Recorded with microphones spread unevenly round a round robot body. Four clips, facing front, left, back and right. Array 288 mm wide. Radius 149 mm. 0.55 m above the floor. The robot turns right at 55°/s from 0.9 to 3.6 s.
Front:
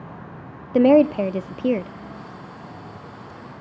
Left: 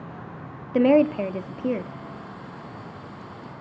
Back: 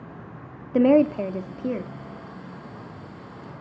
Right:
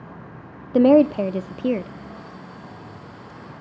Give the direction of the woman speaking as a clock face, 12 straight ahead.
3 o'clock.